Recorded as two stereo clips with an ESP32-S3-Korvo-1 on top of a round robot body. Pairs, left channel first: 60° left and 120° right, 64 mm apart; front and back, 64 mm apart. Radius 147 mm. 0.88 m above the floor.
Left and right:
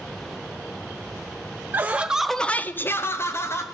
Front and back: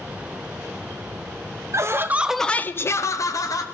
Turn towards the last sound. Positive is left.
turn(degrees=15)